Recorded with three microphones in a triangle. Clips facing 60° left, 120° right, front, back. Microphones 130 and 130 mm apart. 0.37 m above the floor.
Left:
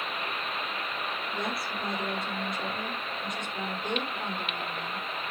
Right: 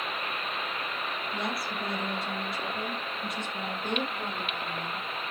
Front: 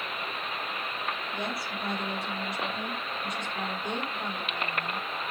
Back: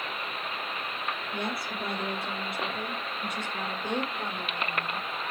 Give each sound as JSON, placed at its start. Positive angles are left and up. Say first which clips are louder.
{"t": 1.3, "sound": "a woman speaking", "louder": "right 1 dB, back 1 dB", "azimuth_deg": 150, "distance_m": 8.0}